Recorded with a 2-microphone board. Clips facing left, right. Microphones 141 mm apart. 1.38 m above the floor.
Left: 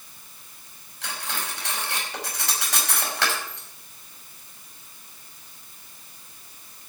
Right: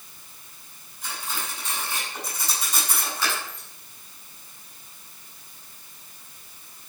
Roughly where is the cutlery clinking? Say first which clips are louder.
Left 1 dB; left.